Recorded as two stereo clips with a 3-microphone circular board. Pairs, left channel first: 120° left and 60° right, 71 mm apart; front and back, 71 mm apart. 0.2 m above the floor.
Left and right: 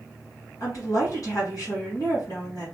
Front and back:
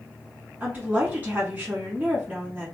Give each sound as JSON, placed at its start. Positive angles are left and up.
{"t": 0.6, "sound": "a woman speaking", "azimuth_deg": 120, "distance_m": 2.0}